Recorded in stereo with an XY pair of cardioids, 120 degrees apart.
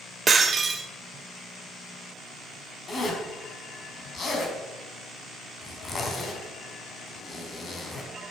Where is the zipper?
35° left, 4.5 m.